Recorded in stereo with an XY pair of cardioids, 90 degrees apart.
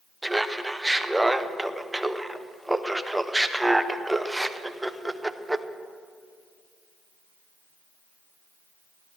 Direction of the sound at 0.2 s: 10° right.